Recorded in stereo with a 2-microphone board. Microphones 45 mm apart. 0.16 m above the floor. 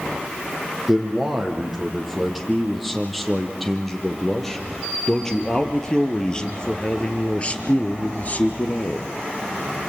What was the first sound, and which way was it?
A man speaking, 5° right (ahead or behind).